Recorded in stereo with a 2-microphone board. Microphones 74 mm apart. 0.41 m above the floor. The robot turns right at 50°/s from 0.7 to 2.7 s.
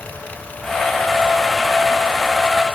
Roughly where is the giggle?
I don't hear a giggle.